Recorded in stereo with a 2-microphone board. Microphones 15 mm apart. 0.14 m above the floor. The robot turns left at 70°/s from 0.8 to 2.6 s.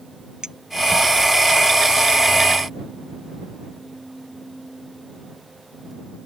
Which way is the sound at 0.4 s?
60° right (ahead or behind).